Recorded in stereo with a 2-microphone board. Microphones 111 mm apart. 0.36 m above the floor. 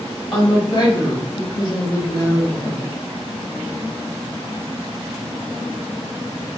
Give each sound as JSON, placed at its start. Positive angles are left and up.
{"t": 0.3, "sound": "a woman speaking", "side_deg": 40, "distance_m": 1.6}